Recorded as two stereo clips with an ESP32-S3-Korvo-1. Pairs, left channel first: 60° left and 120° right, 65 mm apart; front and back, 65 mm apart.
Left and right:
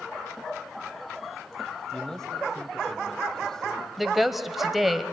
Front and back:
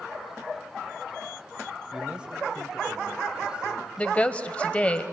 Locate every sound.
1.9 s a man speaking: 130° left, 1.6 m
4.0 s a woman speaking: 40° right, 1.0 m